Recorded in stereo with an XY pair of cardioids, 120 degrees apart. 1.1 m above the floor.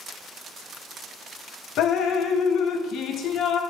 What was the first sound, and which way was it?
Dripping, 65° left.